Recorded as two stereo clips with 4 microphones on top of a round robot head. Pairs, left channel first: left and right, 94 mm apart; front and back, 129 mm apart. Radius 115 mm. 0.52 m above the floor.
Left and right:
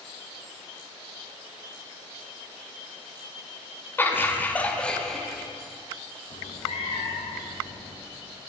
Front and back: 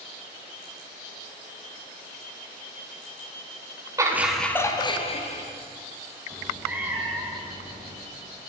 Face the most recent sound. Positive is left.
turn(degrees=100)